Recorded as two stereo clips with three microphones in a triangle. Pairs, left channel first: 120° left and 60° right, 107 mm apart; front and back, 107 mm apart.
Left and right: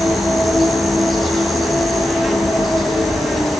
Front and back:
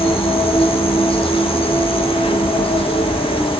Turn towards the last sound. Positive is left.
turn(degrees=30)